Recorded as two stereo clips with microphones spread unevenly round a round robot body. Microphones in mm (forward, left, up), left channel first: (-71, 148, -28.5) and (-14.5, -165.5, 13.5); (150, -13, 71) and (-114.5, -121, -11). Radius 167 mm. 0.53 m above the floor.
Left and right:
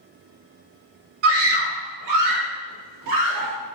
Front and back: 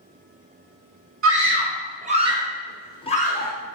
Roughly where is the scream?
Behind right.